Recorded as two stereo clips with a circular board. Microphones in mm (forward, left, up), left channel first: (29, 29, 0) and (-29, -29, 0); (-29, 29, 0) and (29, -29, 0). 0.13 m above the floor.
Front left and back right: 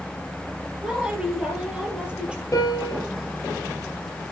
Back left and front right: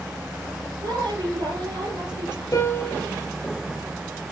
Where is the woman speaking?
60° right, 3.5 m.